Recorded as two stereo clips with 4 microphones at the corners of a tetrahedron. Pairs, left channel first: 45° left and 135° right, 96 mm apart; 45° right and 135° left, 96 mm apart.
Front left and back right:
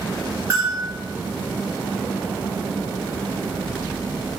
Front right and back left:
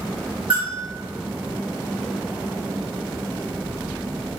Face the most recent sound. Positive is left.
turn(degrees=165)